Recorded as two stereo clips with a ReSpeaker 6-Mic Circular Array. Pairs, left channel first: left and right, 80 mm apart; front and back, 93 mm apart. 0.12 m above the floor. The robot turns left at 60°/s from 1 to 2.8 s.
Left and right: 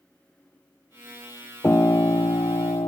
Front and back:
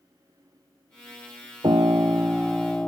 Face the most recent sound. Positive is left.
turn(degrees=80)